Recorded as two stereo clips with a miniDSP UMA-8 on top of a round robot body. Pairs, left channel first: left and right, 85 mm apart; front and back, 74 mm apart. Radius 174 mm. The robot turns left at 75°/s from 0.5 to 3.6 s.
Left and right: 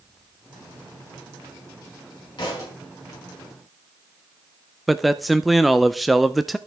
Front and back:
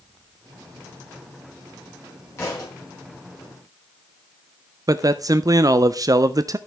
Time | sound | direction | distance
2.4 | a thud | 55° left | 5 m
4.9 | a man speaking | straight behind | 0.6 m